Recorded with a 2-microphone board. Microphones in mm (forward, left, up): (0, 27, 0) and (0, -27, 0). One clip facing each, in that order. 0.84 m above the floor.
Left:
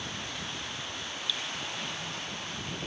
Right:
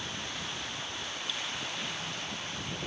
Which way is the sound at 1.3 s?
40° right (ahead or behind).